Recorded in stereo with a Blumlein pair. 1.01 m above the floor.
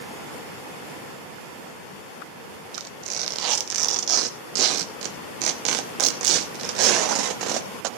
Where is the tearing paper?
40° right, 0.8 m.